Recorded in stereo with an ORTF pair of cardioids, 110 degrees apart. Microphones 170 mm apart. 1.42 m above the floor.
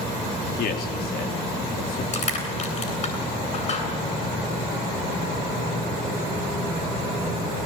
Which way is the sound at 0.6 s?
65° left.